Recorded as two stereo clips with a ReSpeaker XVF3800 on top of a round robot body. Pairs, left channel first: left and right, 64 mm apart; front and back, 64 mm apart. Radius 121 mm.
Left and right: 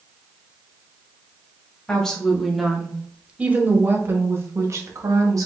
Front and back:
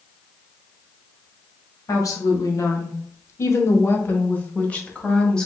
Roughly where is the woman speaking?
Ahead.